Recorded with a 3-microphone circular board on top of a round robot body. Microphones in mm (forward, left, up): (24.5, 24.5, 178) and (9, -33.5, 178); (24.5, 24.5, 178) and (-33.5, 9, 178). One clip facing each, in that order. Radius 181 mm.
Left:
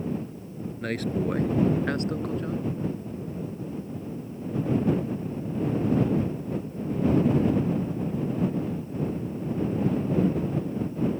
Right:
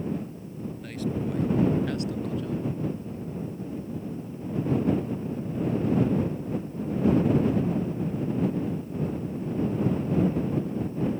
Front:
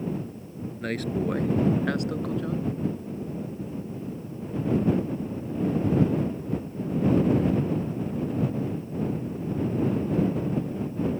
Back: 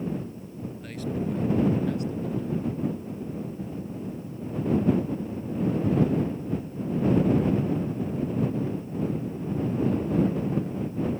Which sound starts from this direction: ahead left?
A man speaking, at 0.8 s.